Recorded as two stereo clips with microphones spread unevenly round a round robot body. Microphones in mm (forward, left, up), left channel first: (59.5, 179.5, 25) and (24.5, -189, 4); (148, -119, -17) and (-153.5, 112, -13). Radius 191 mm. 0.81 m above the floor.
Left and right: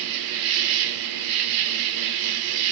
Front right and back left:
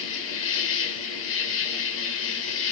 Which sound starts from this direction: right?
An insect, at 0.0 s.